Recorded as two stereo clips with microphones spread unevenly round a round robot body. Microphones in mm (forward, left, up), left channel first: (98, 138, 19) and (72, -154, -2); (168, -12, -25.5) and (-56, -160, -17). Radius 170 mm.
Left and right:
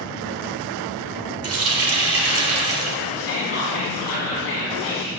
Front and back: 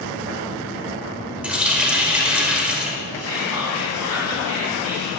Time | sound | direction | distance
1.4 | a running tap | 60° right | 1.5 m
3.2 | whispering | 140° left | 3.5 m